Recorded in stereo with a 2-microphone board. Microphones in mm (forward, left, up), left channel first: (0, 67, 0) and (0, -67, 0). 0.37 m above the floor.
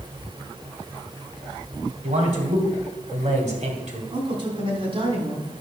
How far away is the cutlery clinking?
I don't hear cutlery clinking.